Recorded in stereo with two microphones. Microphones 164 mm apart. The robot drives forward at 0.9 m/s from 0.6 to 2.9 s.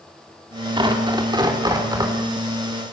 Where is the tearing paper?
30° right (ahead or behind), 3.5 m; by 2.1 s 25° right (ahead or behind), 4.5 m.